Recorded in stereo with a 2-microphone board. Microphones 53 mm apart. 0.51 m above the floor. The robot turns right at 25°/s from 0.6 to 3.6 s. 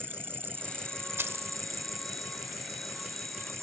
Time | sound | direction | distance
0.0 | an insect | 135° right | ?
1.2 | keys jangling | 50° right (ahead or behind) | ?